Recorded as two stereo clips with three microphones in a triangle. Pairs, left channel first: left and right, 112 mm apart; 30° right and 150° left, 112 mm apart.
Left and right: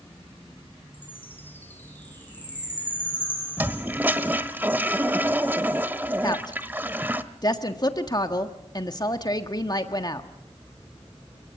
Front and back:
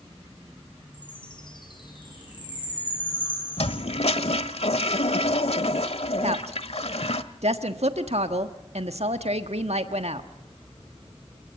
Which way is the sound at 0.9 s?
15° left.